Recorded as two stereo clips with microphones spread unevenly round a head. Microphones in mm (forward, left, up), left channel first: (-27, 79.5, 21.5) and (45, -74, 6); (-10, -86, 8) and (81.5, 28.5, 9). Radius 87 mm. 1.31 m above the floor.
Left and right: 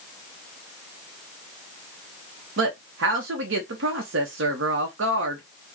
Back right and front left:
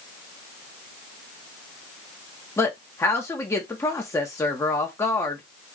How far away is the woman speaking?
About 1.0 m.